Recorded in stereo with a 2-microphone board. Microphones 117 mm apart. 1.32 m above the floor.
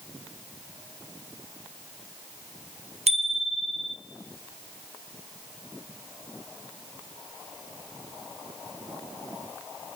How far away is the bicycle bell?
About 3.5 m.